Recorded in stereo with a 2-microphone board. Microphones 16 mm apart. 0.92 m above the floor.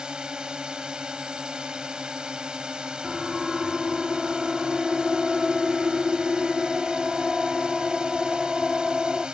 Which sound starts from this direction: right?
A drone, at 0.0 s.